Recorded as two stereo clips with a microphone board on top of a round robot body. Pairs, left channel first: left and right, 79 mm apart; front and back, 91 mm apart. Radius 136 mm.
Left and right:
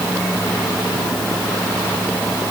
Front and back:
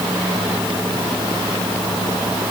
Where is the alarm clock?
No alarm clock in this recording.